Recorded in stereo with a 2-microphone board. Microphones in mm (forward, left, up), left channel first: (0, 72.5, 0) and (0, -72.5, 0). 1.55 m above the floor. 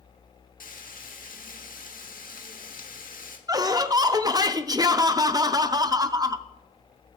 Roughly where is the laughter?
Right.